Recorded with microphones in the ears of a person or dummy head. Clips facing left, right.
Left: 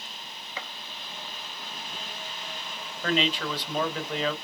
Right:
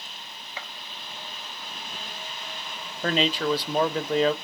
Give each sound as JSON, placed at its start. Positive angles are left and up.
{"t": 0.6, "sound": "a gunshot", "side_deg": 70, "distance_m": 0.6}
{"t": 3.0, "sound": "a man speaking", "side_deg": -30, "distance_m": 0.7}